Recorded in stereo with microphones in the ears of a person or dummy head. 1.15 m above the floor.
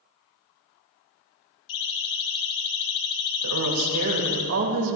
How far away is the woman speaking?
About 4 m.